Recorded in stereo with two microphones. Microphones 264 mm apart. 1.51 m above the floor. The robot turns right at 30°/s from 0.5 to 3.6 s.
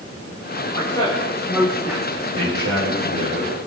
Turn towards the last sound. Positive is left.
turn(degrees=-90)